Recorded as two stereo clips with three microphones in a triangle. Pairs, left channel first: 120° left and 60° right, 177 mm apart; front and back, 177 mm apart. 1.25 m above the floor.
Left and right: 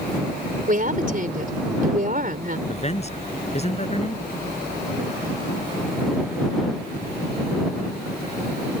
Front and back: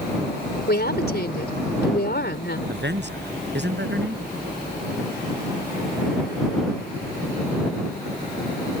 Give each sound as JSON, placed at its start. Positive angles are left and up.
{"t": 0.7, "sound": "a woman speaking", "azimuth_deg": -20}
{"t": 2.7, "sound": "a man speaking", "azimuth_deg": 170}